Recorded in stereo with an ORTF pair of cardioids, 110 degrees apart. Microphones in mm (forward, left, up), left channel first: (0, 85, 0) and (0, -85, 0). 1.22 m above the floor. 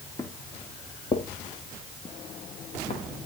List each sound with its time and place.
0.2 s footsteps: 20° left, 4.5 m; by 3.3 s 40° left, 5.5 m